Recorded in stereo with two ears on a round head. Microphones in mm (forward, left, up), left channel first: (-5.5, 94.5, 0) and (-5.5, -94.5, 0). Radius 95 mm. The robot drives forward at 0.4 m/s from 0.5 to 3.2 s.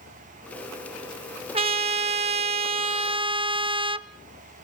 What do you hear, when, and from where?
1.5 s a trumpet: 25° right (ahead or behind), 0.6 m